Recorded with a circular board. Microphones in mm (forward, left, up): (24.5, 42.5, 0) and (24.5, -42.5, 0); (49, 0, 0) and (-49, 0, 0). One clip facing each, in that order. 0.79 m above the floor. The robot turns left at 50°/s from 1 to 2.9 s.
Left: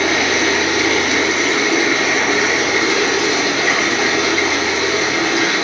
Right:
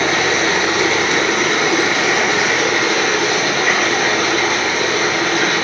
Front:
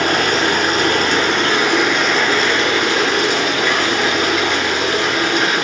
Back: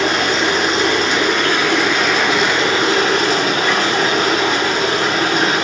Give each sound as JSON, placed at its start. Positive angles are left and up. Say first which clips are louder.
{"t": 0.0, "sound": "running water", "louder": "even, even", "azimuth_deg": -40, "distance_m": 3.5}